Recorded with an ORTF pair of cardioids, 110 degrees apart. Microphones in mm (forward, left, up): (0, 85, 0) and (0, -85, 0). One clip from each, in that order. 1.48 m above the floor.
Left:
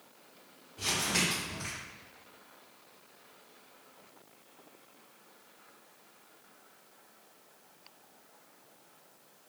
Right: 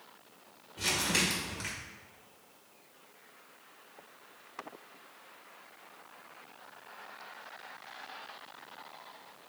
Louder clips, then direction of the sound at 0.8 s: Right 1 dB; 35° right.